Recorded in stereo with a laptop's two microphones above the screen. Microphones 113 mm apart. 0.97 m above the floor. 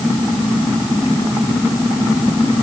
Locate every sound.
Only background noise.